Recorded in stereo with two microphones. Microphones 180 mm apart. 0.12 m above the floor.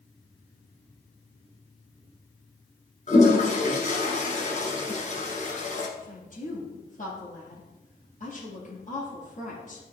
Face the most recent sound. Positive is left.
turn(degrees=45)  # may be behind; listen again after turning